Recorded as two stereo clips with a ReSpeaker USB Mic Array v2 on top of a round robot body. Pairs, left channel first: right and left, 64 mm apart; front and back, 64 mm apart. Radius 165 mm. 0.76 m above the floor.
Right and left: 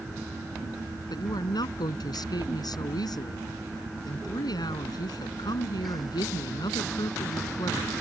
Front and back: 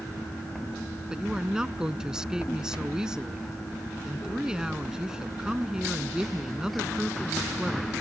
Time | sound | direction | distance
1.1 | a woman speaking | 100° right | ?